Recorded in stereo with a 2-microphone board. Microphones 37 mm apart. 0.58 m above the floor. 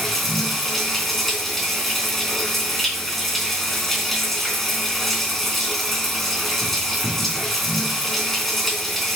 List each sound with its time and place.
0.0 s running water: 5° left (ahead or behind), 3 m